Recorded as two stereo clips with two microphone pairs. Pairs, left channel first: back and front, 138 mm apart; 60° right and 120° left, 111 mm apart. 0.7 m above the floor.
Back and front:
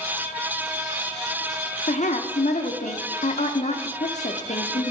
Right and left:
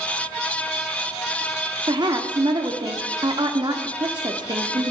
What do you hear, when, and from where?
1.9 s a woman speaking: 160° left, 1.1 m